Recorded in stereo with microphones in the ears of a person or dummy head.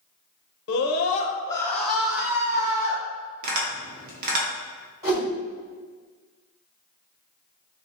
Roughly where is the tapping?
Right.